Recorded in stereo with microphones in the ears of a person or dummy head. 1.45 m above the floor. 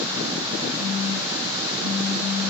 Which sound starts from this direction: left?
A phone buzzing, at 0.8 s.